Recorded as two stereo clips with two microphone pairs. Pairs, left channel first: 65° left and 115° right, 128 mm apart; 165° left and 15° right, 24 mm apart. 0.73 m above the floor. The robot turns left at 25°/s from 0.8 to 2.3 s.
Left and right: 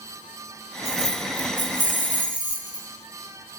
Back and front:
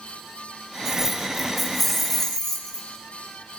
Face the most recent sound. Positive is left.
turn(degrees=-115)